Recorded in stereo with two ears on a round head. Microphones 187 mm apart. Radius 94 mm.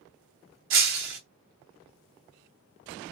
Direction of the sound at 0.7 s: 65° right (ahead or behind).